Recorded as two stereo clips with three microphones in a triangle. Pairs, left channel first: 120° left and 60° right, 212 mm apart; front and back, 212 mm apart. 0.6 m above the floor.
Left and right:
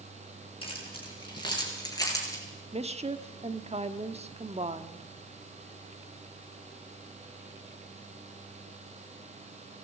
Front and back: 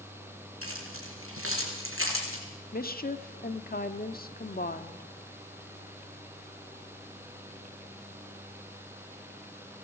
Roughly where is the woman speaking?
Ahead.